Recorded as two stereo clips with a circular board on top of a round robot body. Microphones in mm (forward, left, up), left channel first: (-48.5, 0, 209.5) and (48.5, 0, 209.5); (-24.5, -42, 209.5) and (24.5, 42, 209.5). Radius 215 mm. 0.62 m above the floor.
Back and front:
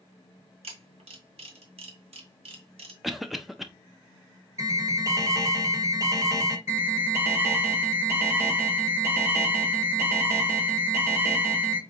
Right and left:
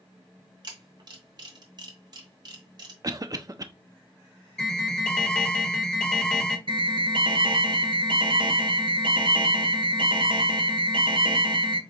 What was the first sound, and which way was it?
A camera shutter, 15° left.